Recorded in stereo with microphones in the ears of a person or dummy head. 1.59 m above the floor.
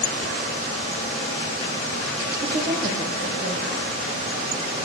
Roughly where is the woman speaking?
Right.